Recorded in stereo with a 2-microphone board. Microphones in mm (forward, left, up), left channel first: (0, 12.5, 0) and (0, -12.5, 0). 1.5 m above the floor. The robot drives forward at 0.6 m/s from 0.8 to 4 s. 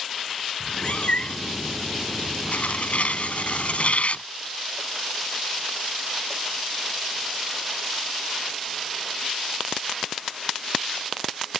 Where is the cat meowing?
55° left (ahead or behind); by 1.6 s 50° left (ahead or behind).